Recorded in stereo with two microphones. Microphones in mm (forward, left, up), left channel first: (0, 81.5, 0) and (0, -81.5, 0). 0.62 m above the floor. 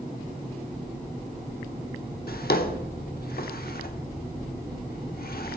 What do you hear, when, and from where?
2.3 s a drawer: 65° left (ahead or behind), 1.0 m